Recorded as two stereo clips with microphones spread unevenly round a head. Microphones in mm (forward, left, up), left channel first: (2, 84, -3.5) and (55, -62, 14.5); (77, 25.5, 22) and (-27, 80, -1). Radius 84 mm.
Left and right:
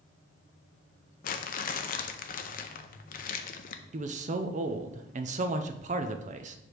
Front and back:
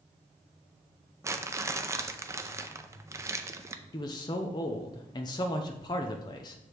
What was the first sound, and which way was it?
Crumpling, 95° left.